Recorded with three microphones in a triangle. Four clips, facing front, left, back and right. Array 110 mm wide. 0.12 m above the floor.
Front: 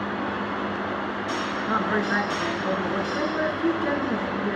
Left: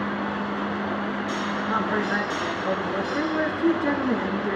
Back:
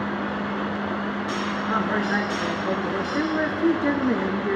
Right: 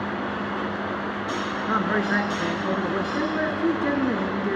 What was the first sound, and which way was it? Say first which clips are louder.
A man speaking: right 2 dB, even; 80° right.